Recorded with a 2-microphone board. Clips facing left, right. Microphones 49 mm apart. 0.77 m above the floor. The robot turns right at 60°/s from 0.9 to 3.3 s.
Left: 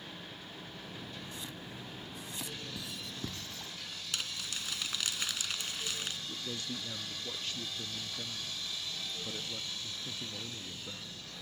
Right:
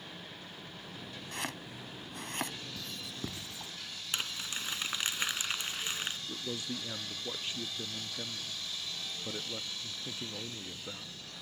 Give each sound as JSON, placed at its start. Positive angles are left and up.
{"t": 1.3, "sound": "chopping", "side_deg": -65}
{"t": 2.8, "sound": "writing", "side_deg": 15}
{"t": 4.1, "sound": "crumpling", "side_deg": -25}
{"t": 6.3, "sound": "a man speaking", "side_deg": -20}